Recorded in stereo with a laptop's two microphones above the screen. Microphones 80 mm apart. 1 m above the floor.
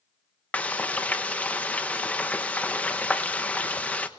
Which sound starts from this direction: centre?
Frying, at 0.5 s.